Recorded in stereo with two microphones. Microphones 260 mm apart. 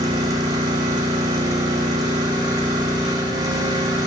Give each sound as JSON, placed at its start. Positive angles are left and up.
{"t": 0.0, "sound": "an engine running", "side_deg": -15, "distance_m": 8.5}